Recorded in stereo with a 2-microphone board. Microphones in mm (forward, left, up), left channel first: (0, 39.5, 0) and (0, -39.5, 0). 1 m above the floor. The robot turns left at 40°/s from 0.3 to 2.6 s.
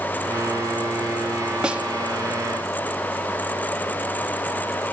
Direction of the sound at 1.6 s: 10° right (ahead or behind).